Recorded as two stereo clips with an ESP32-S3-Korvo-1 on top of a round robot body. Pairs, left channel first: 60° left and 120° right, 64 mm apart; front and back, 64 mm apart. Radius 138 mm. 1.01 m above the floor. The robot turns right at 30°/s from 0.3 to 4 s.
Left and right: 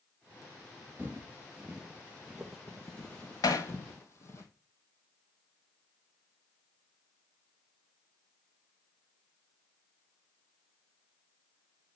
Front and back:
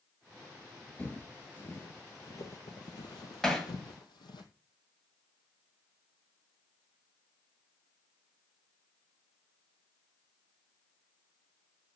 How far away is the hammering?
About 1.7 m.